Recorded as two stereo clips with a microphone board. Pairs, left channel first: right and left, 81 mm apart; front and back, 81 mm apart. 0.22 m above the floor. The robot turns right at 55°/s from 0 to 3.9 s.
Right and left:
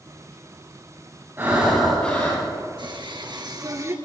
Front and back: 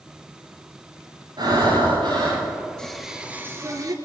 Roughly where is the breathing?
Behind left.